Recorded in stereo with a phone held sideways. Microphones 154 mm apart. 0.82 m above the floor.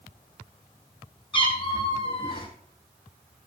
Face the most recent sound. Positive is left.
turn(degrees=35)  # may be behind; listen again after turning